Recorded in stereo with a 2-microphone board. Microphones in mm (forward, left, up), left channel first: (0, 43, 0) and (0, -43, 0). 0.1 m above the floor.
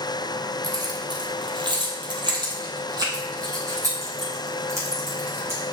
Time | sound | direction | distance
0.6 | keys jangling | 45° right (ahead or behind) | 2 m